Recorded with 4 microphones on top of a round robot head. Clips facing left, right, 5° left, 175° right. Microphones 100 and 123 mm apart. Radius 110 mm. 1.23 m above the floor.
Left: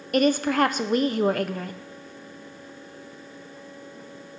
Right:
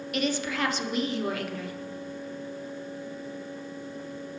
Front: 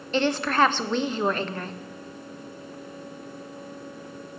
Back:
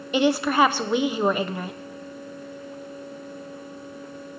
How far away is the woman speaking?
About 0.8 m.